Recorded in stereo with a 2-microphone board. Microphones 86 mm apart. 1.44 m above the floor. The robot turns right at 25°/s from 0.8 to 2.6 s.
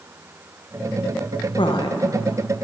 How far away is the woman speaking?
About 1.3 m.